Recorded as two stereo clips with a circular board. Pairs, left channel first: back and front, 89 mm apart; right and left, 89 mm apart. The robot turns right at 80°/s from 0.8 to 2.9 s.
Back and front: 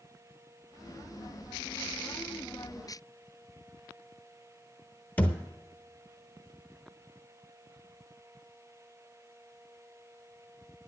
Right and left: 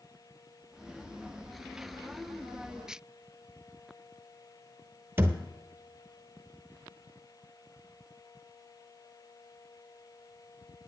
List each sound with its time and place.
5.2 s a thud: 125° left, 0.9 m